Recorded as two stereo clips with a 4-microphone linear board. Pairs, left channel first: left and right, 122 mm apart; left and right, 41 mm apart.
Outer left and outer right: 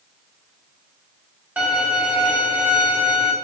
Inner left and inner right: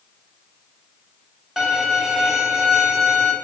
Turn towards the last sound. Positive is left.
turn(degrees=-10)  # may be behind; listen again after turning